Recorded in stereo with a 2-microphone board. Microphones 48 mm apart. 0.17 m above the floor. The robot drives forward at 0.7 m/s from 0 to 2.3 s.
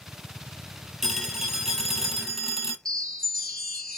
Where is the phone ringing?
5° right (ahead or behind), 2.5 m.